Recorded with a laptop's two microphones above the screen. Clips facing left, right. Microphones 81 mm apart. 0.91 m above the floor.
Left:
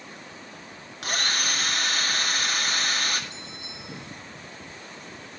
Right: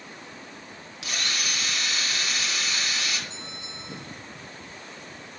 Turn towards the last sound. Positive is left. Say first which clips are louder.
# right 1 dB
turn(degrees=-25)  # may be behind; listen again after turning